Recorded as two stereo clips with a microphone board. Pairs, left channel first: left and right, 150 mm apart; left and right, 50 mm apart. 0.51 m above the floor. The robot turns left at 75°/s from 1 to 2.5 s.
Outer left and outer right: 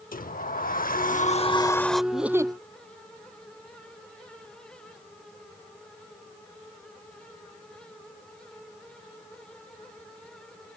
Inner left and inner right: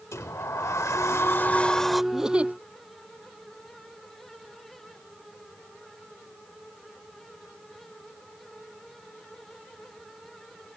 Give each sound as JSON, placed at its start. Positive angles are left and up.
{"t": 0.1, "sound": "a sliding door", "azimuth_deg": 75}
{"t": 2.1, "sound": "a giggle", "side_deg": 0}